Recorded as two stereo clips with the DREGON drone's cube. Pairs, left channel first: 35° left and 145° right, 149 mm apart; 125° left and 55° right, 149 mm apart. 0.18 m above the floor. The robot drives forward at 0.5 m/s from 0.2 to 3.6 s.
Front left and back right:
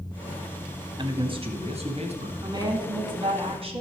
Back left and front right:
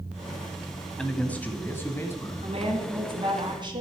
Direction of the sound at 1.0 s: 155° right.